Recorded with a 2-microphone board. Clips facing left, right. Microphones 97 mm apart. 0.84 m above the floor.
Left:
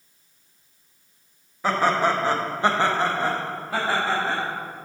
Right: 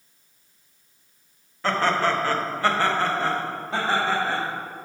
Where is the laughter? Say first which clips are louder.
Left 1 dB; 10° left (ahead or behind), 1.2 m; by 4.4 s 5° left (ahead or behind), 2 m.